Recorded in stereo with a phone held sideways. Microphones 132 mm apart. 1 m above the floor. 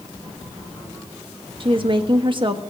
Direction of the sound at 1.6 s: 45° right (ahead or behind).